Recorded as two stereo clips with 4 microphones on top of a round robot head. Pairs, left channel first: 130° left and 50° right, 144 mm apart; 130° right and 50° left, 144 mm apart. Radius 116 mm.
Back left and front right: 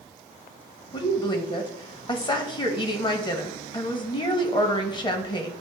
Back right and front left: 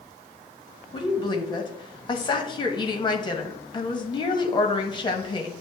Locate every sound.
0.9 s a woman speaking: straight behind, 1.1 m